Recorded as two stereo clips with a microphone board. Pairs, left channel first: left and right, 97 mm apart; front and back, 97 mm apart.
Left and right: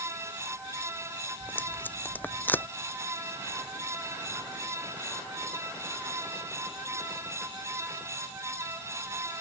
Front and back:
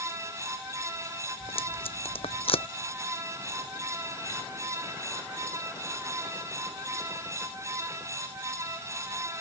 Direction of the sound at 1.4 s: 20° left.